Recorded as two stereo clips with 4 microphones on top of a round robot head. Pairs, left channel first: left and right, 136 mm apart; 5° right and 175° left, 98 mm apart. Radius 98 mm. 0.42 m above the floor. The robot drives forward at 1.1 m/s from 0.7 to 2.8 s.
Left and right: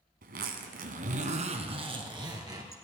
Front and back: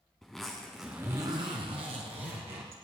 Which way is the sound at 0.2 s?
90° right.